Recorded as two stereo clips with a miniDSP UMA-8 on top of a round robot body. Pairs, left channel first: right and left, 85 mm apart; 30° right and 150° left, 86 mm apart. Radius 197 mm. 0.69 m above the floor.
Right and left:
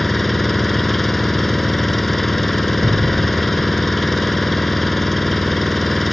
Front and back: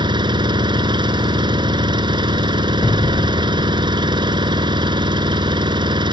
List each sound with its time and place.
0.0 s an engine running: straight behind
2.8 s an explosion: 45° left